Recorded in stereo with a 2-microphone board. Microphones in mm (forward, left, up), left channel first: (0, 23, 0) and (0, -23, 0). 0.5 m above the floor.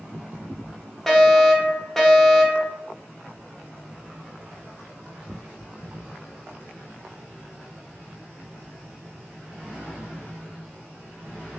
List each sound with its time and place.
1.1 s a fire alarm: 5° left (ahead or behind), 1.7 m